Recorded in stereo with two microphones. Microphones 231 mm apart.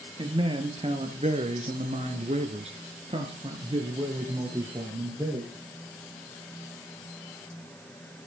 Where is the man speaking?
20° right (ahead or behind), 2 m; by 5.5 s 15° right (ahead or behind), 3.5 m.